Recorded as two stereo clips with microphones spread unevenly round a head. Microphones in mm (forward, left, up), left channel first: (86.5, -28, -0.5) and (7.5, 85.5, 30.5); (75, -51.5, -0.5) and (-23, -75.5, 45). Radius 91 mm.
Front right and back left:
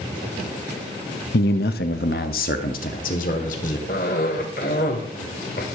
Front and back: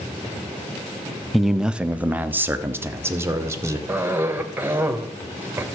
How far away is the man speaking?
About 0.7 m.